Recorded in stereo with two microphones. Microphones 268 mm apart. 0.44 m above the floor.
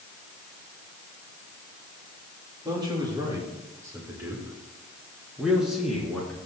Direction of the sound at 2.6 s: 15° right (ahead or behind).